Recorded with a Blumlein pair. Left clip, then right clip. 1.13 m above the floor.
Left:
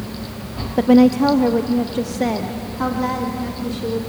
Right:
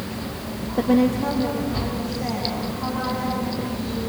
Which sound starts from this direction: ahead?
A woman speaking, at 0.8 s.